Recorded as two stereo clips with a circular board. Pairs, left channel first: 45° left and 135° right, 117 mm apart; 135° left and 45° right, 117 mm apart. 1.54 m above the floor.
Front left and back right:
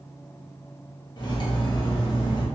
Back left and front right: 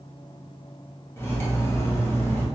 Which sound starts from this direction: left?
Cutlery clinking, at 1.2 s.